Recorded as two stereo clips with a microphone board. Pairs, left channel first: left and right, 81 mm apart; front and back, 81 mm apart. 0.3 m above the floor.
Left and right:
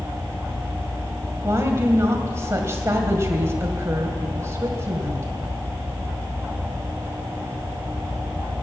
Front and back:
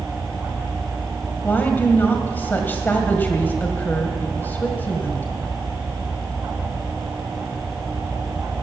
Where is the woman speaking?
55° right, 1.9 m.